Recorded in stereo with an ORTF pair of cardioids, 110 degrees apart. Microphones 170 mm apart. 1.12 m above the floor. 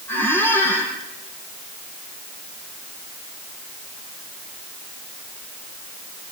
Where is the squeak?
15° left, 6.5 m.